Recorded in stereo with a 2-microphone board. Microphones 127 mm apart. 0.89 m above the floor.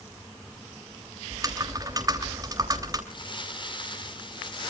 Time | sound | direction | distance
1.3 | typing on a keyboard | 30° right (ahead or behind) | 3 m
3.1 | crumpling | 40° left (ahead or behind) | 3 m